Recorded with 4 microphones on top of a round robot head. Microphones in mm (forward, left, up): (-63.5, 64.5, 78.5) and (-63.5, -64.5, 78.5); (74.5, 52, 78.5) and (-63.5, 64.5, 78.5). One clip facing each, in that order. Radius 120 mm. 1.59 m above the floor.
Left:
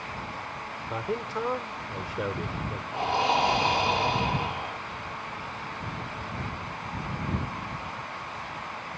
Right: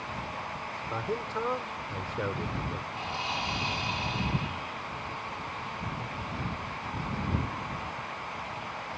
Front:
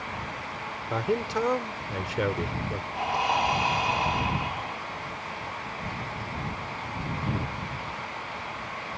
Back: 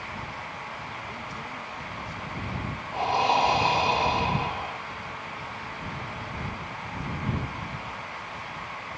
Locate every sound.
0.9 s a man speaking: 10° left
2.9 s breathing: 120° left